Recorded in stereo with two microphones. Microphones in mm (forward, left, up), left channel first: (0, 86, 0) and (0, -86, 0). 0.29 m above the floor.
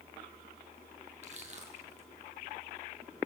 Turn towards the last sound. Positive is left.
turn(degrees=-40)  # may be behind; listen again after turning